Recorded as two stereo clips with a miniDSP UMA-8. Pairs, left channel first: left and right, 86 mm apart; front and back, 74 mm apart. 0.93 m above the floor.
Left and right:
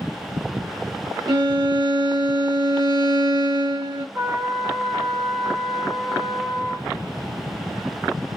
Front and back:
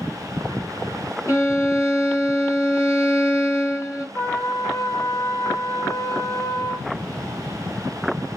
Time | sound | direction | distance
1.3 | a violin | 50° right | 1.3 m
4.2 | a trumpet | 50° right | 1.0 m